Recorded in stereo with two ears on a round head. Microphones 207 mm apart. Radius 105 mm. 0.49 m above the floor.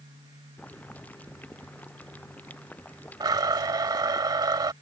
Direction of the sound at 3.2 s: 20° right (ahead or behind).